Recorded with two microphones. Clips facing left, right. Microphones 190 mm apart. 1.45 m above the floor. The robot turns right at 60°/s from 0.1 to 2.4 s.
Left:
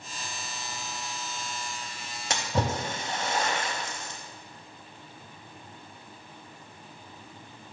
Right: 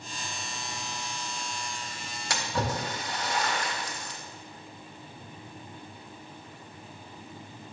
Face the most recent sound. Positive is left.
turn(degrees=25)  # may be behind; listen again after turning